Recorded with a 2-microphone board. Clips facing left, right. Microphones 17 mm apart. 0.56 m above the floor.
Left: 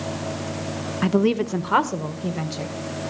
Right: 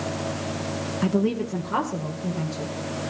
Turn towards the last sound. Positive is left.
turn(degrees=45)  # may be behind; listen again after turning